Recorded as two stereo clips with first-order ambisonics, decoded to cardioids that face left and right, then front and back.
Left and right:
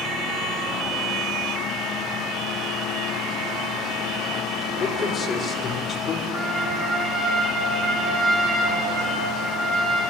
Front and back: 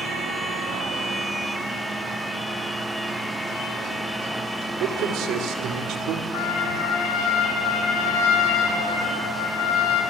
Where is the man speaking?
150° left, 2.5 m.